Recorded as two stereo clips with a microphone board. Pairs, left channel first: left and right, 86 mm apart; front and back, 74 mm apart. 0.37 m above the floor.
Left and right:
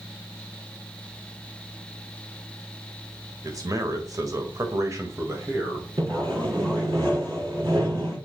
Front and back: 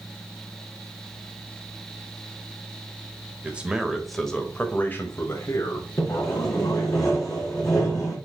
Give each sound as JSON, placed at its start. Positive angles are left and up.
{"t": 3.4, "sound": "a man speaking", "azimuth_deg": -115, "distance_m": 1.4}
{"t": 6.0, "sound": "sawing", "azimuth_deg": -45, "distance_m": 4.0}